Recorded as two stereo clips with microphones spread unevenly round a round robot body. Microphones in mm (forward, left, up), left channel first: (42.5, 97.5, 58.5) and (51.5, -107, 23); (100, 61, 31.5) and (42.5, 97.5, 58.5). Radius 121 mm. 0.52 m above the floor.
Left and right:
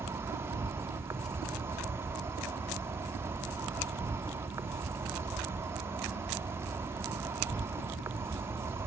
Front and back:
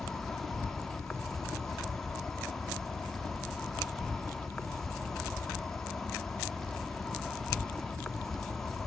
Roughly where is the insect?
Ahead right.